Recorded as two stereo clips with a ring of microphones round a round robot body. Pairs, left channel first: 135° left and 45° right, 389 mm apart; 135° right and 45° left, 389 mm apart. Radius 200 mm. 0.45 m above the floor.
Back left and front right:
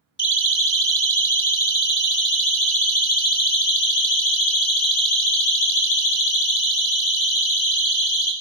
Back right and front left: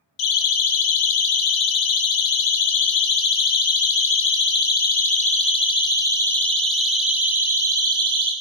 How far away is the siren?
About 5.5 m.